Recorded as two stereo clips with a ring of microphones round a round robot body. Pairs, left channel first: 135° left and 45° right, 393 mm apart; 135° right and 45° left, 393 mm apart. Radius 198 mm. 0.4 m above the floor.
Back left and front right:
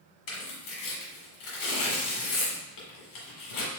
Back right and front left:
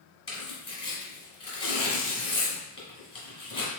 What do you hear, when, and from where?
0.3 s tearing paper: 150° left, 1.6 m